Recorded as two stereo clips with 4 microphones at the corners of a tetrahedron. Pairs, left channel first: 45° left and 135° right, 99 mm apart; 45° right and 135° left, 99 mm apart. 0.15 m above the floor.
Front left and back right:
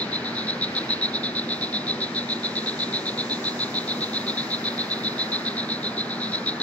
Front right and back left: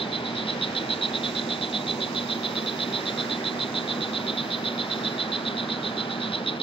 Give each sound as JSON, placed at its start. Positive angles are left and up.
{"t": 0.0, "sound": "an insect", "azimuth_deg": -30}